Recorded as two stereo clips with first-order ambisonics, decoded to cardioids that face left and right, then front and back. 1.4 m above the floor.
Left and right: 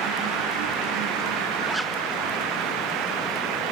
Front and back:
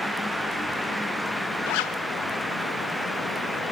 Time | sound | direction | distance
1.7 | a zipper | 5° right | 1.1 m